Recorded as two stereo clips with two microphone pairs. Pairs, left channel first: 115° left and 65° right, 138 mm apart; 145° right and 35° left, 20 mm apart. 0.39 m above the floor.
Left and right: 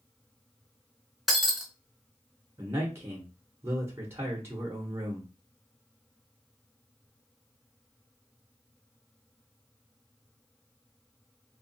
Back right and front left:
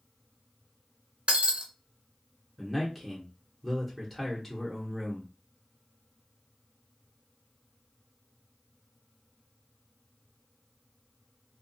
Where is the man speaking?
70° right, 0.8 m.